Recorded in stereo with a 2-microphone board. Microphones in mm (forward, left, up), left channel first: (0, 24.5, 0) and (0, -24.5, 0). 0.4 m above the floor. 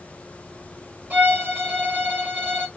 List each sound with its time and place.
1.1 s a violin: 35° right (ahead or behind), 2 m